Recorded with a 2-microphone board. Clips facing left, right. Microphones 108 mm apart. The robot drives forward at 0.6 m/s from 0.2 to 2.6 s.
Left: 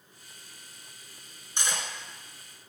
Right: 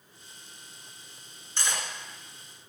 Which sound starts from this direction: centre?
Cutlery clinking, at 1.6 s.